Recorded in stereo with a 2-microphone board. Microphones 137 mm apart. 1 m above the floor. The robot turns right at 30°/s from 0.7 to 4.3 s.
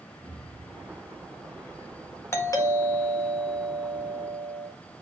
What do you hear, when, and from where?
0.2 s an explosion: 40° right, 4 m; by 2.2 s 5° left, 4 m
2.3 s a doorbell: 20° left, 1.5 m; by 4.7 s 80° left, 1.5 m